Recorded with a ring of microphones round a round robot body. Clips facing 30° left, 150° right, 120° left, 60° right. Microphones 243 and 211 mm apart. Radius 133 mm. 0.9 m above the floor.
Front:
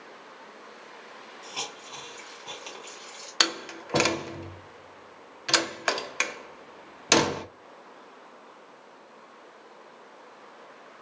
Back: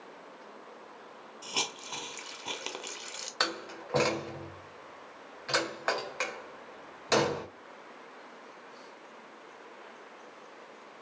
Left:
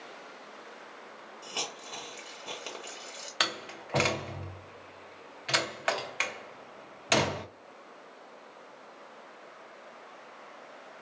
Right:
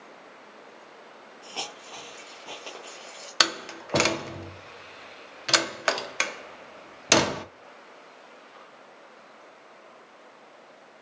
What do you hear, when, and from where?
1.4 s a hiss: 170° right, 0.6 m
3.4 s a door slam: 20° right, 0.6 m